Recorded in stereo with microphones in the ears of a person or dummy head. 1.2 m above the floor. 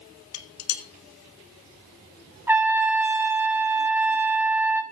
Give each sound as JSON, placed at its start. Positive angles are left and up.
{"t": 0.3, "sound": "dishes clattering", "side_deg": 85, "distance_m": 1.4}
{"t": 2.5, "sound": "a trumpet", "side_deg": -10, "distance_m": 0.8}